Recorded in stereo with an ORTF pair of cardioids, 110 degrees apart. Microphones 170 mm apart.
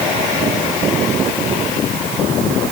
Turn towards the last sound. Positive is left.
No sound to turn to.